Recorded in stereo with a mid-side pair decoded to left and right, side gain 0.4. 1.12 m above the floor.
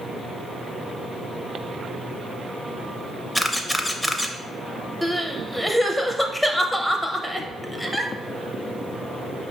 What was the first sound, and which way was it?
A camera shutter, 5° left.